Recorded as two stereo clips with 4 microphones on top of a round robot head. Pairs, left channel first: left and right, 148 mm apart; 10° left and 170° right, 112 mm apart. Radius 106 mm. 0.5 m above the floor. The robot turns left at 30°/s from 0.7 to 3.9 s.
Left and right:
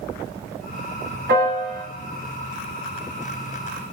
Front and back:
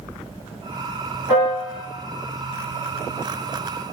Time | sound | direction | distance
1.3 | a piano | 90° right | 1.4 m